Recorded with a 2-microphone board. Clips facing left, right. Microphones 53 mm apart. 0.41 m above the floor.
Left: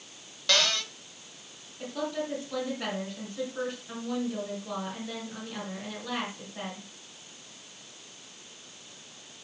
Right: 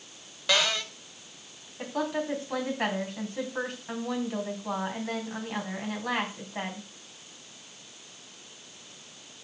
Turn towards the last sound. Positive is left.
turn(degrees=-60)  # may be behind; listen again after turning